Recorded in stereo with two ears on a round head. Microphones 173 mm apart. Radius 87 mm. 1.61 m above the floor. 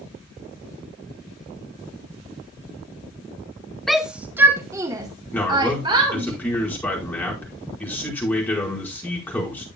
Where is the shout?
Centre (ahead or behind), 0.7 m; by 6.3 s 25° right (ahead or behind), 2 m.